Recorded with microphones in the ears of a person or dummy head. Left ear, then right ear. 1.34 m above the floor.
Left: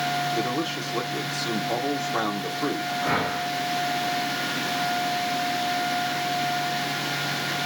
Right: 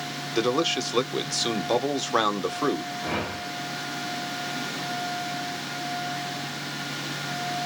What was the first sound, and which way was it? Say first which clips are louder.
A man speaking: right 2 dB; 50° right (ahead or behind).